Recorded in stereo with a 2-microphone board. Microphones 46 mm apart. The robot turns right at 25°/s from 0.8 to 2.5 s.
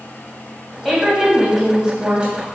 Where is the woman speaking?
170° left, 2.0 m; by 2.5 s 145° right, 2.0 m.